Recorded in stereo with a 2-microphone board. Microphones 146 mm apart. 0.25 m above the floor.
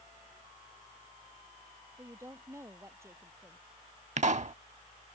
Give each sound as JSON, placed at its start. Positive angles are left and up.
{"t": 2.0, "sound": "a woman speaking", "side_deg": -15}
{"t": 4.2, "sound": "a pop", "side_deg": -55}